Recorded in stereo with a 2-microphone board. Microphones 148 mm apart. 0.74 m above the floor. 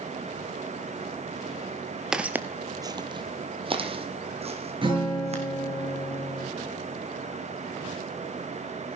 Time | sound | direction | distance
2.1 | footsteps | 5° right (ahead or behind) | 0.7 m
4.8 | a guitar | 35° right (ahead or behind) | 6 m